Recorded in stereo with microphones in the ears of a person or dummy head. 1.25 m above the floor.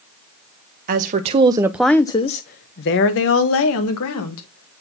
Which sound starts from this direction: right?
A woman speaking, at 0.9 s.